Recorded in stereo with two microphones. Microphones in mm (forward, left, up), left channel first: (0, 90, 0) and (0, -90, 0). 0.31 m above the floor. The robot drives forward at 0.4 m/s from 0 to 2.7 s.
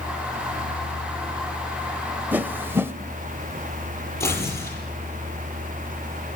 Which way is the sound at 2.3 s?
10° right (ahead or behind).